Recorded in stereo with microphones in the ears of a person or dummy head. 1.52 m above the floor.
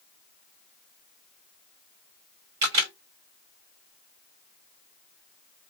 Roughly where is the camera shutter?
Right.